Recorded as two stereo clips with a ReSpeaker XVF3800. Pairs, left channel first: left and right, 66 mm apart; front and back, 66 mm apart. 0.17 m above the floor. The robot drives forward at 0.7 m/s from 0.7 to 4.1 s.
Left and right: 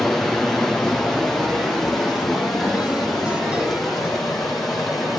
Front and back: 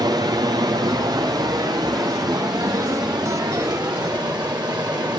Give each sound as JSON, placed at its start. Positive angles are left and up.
{"t": 0.0, "sound": "running water", "azimuth_deg": 180, "distance_m": 3.0}